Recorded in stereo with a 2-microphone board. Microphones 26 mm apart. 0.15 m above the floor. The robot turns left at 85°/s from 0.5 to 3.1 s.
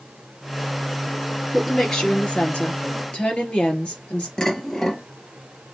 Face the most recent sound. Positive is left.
turn(degrees=20)  # may be behind; listen again after turning